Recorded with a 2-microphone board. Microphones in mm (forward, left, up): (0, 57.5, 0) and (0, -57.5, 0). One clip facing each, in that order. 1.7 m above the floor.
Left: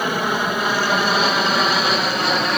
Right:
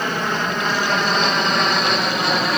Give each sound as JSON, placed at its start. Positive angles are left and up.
{"t": 0.0, "sound": "an aircraft", "side_deg": 10}